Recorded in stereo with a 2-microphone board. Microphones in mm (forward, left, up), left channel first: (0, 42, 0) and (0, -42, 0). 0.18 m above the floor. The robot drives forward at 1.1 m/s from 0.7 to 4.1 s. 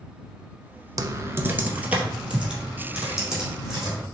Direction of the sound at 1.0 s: 45° right (ahead or behind).